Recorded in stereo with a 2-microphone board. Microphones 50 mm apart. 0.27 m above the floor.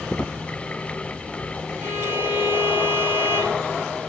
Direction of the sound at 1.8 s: 55° right (ahead or behind).